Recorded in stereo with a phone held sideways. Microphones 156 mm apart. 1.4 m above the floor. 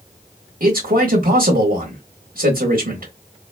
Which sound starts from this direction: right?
A man speaking, at 0.6 s.